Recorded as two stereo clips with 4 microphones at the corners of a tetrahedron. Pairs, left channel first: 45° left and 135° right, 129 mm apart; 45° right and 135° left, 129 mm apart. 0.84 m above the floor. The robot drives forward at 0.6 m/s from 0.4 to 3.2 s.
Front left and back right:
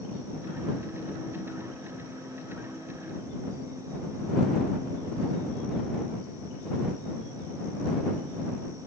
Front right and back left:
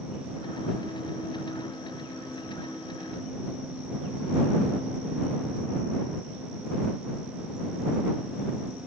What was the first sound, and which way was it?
Only background noise.